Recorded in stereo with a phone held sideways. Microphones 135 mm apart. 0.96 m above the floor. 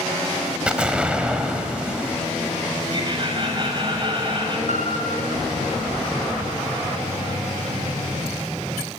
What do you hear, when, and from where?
0.7 s an explosion: 10° right (ahead or behind), 2 m
2.9 s laughter: 40° right (ahead or behind), 6 m
4.7 s a piano: 75° right (ahead or behind), 4.5 m